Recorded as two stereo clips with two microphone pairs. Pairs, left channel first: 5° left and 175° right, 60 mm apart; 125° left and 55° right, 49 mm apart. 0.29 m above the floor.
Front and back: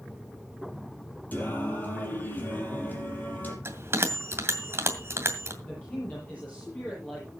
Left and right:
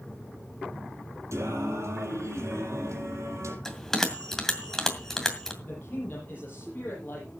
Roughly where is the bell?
Behind.